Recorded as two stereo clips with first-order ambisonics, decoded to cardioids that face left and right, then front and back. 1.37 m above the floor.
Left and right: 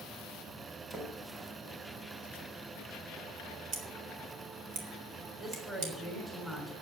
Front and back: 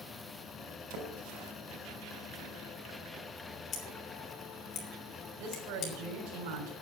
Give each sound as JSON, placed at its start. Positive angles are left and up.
{"t": 0.9, "sound": "a splash", "azimuth_deg": -170, "distance_m": 4.5}
{"t": 3.7, "sound": "scissors", "azimuth_deg": -55, "distance_m": 3.5}
{"t": 5.4, "sound": "a woman speaking", "azimuth_deg": -170, "distance_m": 4.0}